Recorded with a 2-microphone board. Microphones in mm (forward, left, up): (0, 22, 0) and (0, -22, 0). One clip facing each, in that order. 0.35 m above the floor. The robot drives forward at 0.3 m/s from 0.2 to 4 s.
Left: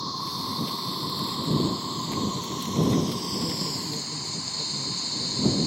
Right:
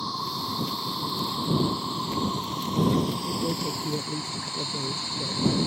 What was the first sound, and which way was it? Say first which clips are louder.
An insect: right 1 dB; 5° right (ahead or behind).